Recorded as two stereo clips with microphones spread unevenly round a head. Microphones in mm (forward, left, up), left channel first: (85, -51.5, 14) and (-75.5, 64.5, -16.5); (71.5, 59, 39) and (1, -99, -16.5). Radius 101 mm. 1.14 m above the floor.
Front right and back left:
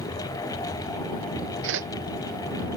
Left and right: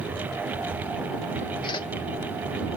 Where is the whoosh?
140° left.